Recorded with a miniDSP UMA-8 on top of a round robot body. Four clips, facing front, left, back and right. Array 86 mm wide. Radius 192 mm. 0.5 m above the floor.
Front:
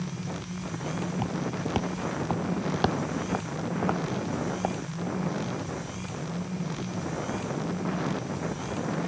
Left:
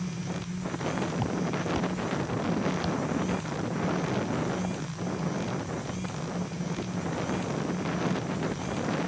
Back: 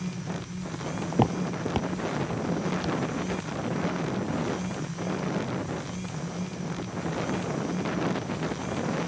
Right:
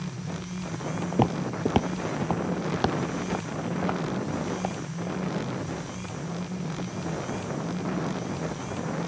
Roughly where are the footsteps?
Behind right.